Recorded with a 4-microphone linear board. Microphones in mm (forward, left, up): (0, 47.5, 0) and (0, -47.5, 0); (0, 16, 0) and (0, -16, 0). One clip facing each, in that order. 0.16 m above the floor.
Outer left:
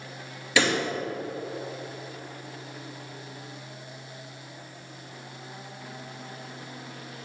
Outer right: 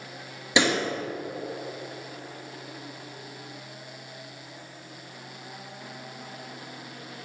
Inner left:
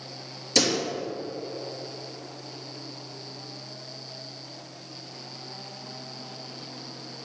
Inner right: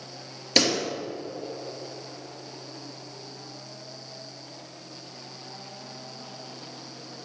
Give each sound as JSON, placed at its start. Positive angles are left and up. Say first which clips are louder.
{"t": 0.6, "sound": "a pop", "louder": "outer right 1 dB, inner right 1 dB", "side_deg": -20, "distance_m": 3.5}